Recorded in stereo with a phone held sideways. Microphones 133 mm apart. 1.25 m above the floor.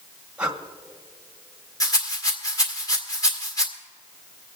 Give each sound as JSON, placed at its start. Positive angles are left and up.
{"t": 0.4, "sound": "breathing", "side_deg": -10, "distance_m": 1.2}
{"t": 1.8, "sound": "a rattle", "side_deg": 25, "distance_m": 1.9}